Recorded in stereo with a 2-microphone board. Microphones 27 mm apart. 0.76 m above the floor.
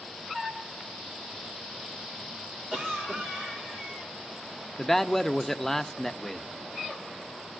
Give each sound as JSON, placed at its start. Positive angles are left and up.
{"t": 2.7, "sound": "a cough", "side_deg": -40, "distance_m": 2.5}
{"t": 4.8, "sound": "a man speaking", "side_deg": 10, "distance_m": 0.6}